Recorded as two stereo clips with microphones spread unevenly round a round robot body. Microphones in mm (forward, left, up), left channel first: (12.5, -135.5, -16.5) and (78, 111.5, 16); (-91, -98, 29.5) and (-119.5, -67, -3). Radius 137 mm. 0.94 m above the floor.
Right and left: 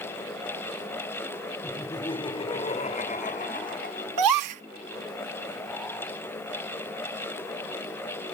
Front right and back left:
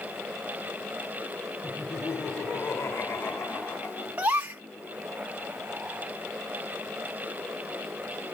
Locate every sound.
1.6 s laughter: 25° right; by 4.1 s 50° right
4.2 s a gasp: 90° left